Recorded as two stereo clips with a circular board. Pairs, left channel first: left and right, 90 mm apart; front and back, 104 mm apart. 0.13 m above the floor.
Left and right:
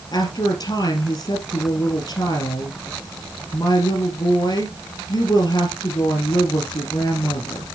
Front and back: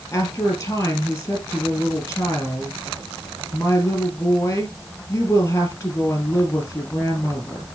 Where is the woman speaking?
60° left, 2.5 m.